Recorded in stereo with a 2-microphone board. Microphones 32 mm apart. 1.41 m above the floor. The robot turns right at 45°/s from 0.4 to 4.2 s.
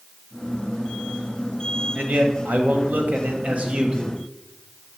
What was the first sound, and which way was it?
A man speaking, 120° right.